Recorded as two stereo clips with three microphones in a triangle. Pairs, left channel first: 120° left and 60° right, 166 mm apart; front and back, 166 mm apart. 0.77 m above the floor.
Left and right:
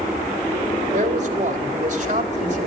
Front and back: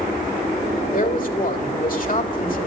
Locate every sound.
0.9 s a man speaking: 25° right, 2 m